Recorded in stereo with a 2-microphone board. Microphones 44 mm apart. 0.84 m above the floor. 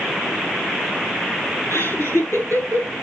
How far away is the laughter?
About 9.5 m.